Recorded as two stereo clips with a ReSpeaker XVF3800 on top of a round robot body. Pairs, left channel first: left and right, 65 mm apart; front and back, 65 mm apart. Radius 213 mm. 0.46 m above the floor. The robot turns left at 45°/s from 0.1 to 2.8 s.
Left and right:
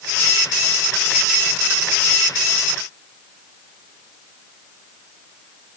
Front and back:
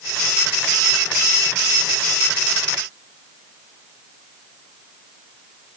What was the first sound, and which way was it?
Only background noise.